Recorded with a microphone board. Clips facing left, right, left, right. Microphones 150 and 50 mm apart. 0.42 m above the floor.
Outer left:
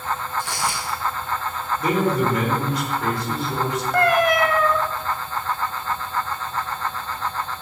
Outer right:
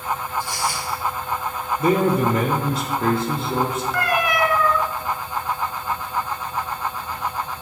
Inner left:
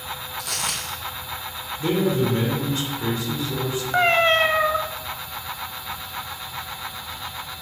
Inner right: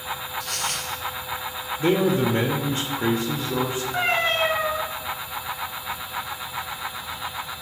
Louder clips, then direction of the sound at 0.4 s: Outer right 1 dB, even; 80° left.